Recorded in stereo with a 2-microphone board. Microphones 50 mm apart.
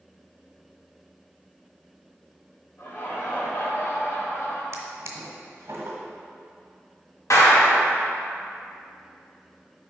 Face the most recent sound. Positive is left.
turn(degrees=80)